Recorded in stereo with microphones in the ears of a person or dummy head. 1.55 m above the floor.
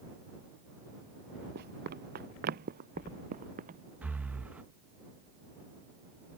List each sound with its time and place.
1.6 s running footsteps: 50° right (ahead or behind); by 3.8 s 40° right (ahead or behind)
4.0 s breathing: 10° right (ahead or behind)